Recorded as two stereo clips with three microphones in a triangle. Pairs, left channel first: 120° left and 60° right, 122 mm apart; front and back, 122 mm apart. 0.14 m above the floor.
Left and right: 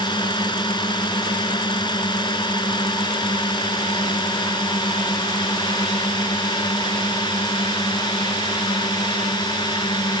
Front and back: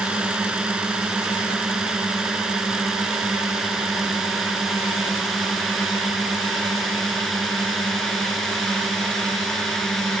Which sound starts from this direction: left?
A drone, at 0.0 s.